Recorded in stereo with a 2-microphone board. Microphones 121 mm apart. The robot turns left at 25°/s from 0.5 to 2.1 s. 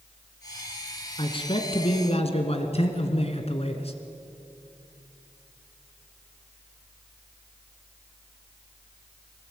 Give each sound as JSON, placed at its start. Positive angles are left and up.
{"t": 1.2, "sound": "a man speaking", "side_deg": 45, "distance_m": 2.5}